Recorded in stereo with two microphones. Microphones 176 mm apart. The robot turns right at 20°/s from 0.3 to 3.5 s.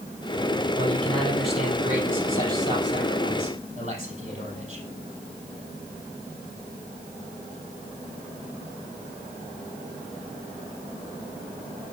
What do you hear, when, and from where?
0.8 s a man speaking: 165° left, 5.5 m; by 4.8 s 140° right, 5.5 m